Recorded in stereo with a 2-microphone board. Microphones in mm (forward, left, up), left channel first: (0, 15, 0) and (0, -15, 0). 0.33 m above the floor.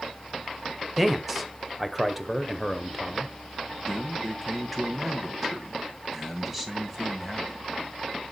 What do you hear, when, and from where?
1.0 s a man speaking: 5° right (ahead or behind), 1.1 m
3.9 s a man speaking: 10° right (ahead or behind), 2.5 m